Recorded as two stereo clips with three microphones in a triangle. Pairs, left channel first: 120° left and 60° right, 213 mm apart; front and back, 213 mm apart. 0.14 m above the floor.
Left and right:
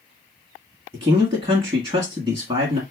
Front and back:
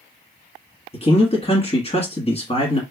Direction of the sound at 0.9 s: 20° right.